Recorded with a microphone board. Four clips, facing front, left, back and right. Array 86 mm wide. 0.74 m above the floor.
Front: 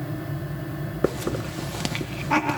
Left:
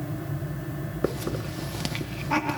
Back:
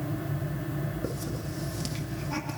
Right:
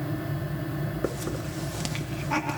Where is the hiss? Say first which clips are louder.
Left 5 dB, front 9 dB; 10° left, 0.6 m.